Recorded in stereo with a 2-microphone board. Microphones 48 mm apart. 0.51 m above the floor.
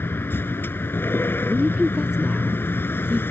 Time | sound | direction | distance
0.0 | a vehicle | 50° left (ahead or behind) | ?
1.5 | a woman speaking | 15° right (ahead or behind) | ?